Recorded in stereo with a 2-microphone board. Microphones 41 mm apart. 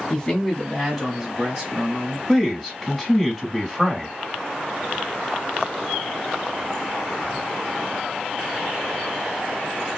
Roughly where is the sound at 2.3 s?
Centre.